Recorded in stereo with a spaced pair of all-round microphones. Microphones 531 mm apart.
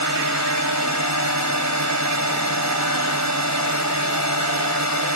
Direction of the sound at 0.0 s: 30° right (ahead or behind).